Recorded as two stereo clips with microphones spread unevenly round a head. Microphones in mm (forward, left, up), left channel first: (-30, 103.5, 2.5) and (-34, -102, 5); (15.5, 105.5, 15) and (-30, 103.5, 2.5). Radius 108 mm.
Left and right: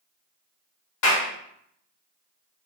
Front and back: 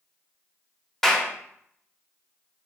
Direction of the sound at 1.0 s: 85° left.